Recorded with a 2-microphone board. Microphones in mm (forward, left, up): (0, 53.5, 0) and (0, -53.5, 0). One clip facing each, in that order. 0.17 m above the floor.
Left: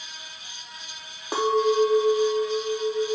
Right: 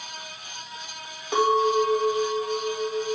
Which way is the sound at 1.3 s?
35° left (ahead or behind).